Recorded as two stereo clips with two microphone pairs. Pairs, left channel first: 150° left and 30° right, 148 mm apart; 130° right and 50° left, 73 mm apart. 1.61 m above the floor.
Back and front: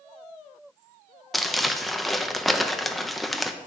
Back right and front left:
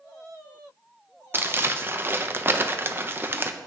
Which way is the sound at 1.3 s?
60° left.